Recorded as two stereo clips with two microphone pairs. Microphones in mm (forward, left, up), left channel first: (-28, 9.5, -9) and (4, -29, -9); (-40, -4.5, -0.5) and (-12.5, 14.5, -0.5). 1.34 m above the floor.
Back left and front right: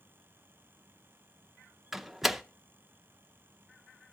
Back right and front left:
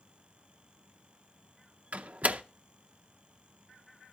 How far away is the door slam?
About 0.5 m.